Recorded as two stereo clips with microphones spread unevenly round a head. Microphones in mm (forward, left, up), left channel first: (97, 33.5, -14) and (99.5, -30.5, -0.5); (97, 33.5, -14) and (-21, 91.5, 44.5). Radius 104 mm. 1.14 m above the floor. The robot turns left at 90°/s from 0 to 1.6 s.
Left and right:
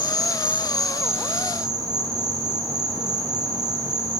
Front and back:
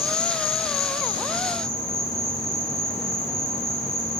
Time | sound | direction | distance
0.0 | an insect | 25° left | 5.5 m